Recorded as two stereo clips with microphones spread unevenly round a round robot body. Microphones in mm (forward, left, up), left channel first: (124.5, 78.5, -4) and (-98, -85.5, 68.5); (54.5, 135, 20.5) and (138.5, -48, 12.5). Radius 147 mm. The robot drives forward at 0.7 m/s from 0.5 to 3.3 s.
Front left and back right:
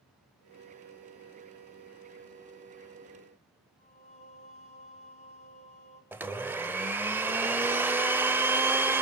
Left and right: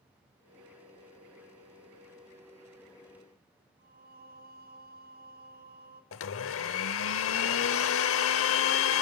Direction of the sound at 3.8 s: 25° right.